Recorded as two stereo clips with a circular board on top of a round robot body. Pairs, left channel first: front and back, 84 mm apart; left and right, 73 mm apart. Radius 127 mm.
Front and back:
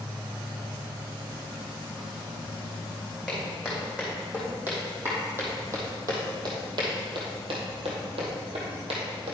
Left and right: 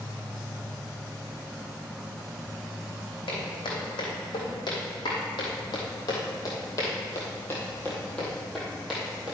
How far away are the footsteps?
About 3.5 m.